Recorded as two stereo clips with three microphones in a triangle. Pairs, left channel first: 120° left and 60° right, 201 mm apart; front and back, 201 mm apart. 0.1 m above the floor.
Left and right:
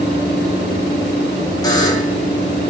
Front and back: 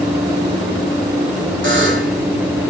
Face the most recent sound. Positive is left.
turn(degrees=-170)